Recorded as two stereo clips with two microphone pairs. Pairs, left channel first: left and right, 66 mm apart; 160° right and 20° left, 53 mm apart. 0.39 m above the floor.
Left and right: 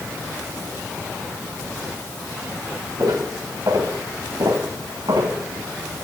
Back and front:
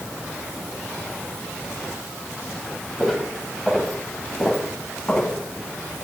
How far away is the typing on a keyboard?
I don't hear typing on a keyboard.